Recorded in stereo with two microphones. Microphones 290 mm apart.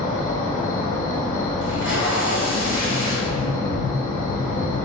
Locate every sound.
0.0 s an insect: 25° left (ahead or behind), 1.5 m
1.6 s tape being pulled: 45° right (ahead or behind), 1.4 m
3.3 s tapping: 30° right (ahead or behind), 1.8 m